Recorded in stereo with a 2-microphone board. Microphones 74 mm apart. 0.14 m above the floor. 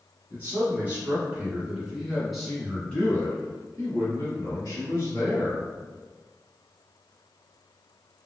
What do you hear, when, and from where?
0.3 s a man speaking: 30° right (ahead or behind), 1.7 m; by 5.7 s 45° left (ahead or behind), 1.9 m